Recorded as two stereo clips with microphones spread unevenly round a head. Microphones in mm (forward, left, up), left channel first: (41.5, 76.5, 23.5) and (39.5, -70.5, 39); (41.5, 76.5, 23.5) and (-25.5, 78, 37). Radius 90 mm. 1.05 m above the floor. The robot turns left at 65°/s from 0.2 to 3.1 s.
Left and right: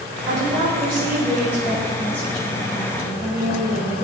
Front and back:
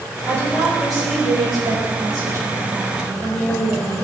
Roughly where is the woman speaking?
Right.